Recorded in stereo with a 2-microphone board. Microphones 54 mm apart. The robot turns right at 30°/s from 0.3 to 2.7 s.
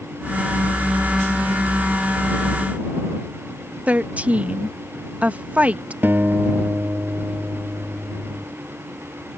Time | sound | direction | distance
3.9 | a woman speaking | 30° right (ahead or behind) | ?
6.0 | a guitar | 40° right (ahead or behind) | ?